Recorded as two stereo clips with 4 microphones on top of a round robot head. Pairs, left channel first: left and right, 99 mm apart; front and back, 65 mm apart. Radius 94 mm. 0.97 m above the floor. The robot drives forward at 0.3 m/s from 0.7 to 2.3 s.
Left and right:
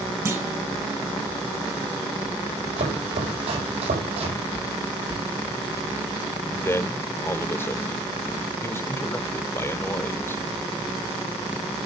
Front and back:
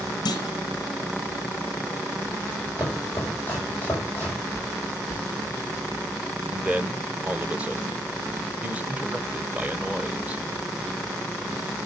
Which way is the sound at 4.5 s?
125° right.